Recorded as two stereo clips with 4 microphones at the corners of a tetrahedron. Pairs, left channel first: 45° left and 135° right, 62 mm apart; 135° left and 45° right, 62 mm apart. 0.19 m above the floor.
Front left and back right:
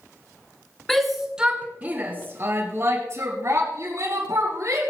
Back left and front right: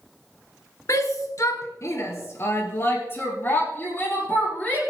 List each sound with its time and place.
0.9 s a shout: 130° left, 2 m; by 4.8 s 165° right, 6.5 m